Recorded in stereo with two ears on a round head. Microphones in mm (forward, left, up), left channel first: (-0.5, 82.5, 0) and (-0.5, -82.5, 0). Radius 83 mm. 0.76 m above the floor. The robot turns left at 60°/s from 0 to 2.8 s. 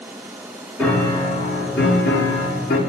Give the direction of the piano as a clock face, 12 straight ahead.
6 o'clock.